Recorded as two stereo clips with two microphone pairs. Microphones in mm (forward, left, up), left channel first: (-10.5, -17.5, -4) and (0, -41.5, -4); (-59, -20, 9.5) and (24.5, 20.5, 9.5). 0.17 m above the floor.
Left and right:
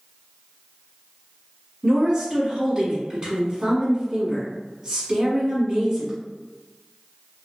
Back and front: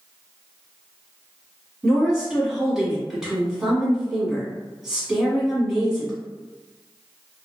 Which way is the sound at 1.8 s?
50° right.